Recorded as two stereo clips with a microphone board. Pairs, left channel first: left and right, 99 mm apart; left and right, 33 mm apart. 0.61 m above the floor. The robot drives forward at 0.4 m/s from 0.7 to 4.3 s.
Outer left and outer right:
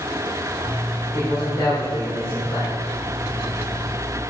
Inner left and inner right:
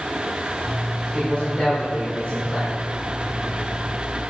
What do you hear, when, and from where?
1.1 s a man speaking: 55° left (ahead or behind), 1.9 m; by 2.8 s 45° left (ahead or behind), 2 m